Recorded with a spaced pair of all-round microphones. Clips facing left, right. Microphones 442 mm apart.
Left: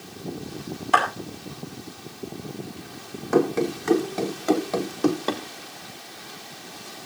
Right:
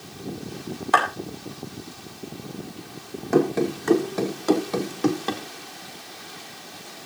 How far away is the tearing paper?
I don't hear tearing paper.